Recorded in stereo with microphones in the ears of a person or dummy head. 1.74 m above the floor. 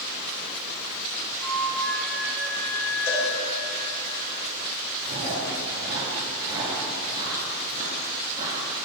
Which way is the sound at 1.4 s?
Centre (ahead or behind).